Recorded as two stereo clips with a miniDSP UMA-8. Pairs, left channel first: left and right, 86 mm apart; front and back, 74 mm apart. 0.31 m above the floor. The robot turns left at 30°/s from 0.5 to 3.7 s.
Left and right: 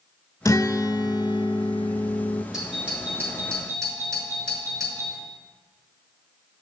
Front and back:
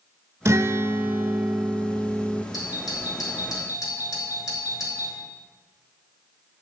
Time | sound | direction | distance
0.5 | a guitar | 130° left | 0.8 m
2.5 | a doorbell | 5° right | 5 m